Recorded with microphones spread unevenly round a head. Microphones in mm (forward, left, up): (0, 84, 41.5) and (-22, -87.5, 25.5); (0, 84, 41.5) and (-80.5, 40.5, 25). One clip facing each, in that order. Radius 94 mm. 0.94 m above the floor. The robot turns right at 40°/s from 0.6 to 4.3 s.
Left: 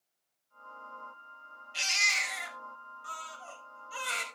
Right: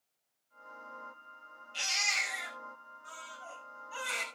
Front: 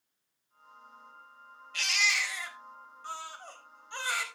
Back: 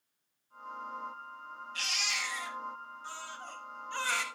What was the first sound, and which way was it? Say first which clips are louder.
A baby crying: left 1 dB, front 8 dB; 10° left.